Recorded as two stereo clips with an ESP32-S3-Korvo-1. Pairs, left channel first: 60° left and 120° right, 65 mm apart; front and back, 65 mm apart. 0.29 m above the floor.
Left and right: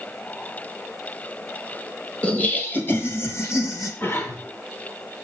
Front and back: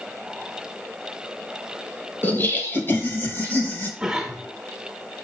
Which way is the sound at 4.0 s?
95° left.